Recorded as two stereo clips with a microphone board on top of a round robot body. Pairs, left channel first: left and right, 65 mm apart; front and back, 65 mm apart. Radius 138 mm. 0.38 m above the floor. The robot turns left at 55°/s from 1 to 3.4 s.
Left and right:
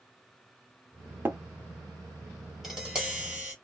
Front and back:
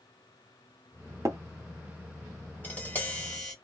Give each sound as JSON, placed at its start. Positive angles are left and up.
{"t": 1.2, "sound": "tapping", "azimuth_deg": -145, "distance_m": 0.6}
{"t": 2.6, "sound": "tapping", "azimuth_deg": -10, "distance_m": 1.5}